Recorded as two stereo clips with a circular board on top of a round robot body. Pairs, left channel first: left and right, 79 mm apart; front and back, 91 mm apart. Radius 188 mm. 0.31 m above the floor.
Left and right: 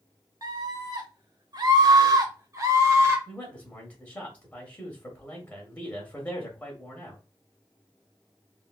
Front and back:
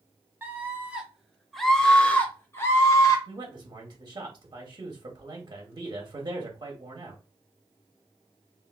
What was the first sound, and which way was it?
A scream, 115° right.